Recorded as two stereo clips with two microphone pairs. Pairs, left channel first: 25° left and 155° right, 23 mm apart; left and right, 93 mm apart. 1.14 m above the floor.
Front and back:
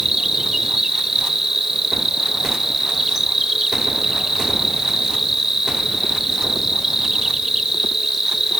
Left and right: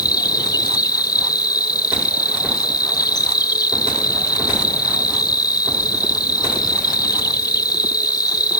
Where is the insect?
130° left.